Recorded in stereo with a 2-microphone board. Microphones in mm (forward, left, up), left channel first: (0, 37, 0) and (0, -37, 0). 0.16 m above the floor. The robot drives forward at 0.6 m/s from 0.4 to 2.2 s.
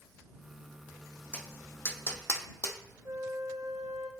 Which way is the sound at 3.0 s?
45° right (ahead or behind).